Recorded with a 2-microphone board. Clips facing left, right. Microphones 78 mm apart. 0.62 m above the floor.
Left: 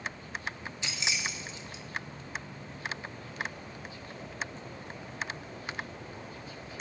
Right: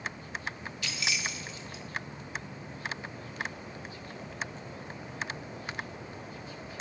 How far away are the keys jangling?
About 0.5 m.